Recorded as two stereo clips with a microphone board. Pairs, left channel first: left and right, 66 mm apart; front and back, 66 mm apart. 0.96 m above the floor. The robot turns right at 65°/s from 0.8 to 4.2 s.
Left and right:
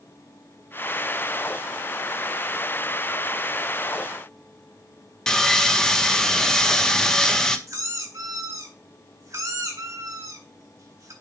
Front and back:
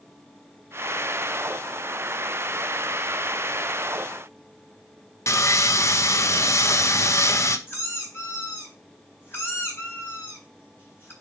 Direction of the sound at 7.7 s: 55° right.